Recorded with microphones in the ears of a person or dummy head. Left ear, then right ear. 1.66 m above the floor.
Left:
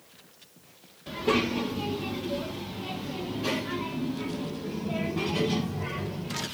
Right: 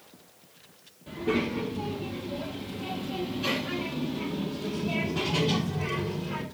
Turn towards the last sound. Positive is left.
turn(degrees=-65)  # may be behind; listen again after turning